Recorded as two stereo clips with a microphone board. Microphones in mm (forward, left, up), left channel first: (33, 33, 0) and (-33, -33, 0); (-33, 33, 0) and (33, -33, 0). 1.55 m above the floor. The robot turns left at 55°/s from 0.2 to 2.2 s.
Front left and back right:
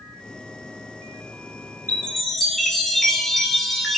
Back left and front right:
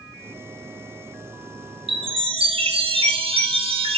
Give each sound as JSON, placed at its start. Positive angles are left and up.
{"t": 1.9, "sound": "a chime", "azimuth_deg": -25, "distance_m": 0.9}